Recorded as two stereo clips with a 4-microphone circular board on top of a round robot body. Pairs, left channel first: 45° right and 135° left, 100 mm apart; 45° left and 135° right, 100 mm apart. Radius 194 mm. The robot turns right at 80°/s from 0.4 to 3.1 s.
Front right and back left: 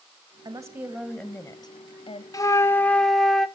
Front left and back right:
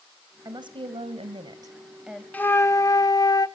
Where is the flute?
20° right, 1.0 m; by 3.5 s 40° left, 1.0 m.